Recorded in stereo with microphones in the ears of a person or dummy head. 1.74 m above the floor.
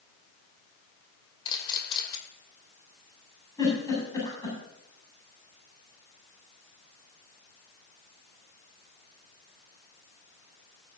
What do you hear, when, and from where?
1.4 s a camera shutter: 25° left (ahead or behind), 2.5 m
3.6 s a giggle: 20° left (ahead or behind), 7.5 m